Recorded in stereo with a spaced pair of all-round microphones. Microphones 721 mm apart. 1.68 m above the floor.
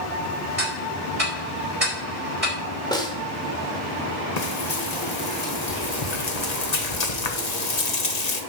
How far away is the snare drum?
About 1.7 m.